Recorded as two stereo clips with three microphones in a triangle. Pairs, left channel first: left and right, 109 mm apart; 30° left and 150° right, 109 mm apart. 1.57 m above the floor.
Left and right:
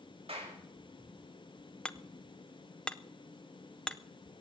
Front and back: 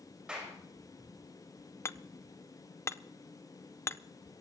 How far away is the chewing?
No chewing in this recording.